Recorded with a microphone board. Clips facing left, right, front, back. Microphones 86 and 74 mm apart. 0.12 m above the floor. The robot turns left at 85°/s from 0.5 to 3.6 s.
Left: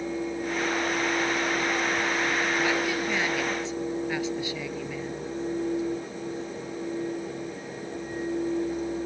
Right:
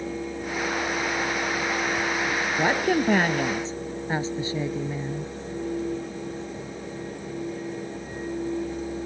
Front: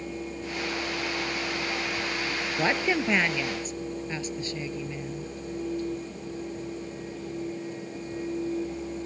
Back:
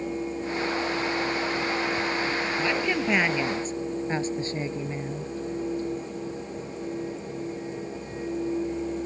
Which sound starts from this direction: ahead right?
A woman speaking, at 2.6 s.